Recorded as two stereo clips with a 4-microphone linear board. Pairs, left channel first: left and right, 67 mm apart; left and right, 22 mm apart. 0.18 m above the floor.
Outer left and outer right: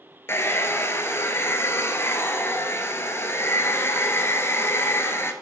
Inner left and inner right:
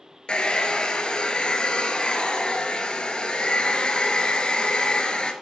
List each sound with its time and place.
0.3 s a hair dryer: 40° left (ahead or behind), 1.0 m